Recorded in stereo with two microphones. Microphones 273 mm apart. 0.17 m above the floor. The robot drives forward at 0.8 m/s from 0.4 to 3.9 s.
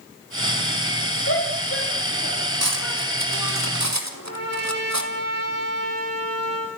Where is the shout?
45° left (ahead or behind), 3 m; by 3.6 s 55° left (ahead or behind), 3 m.